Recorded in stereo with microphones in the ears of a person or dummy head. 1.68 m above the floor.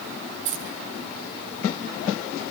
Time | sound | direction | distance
0.5 | keys jangling | 70° right (ahead or behind) | 10 m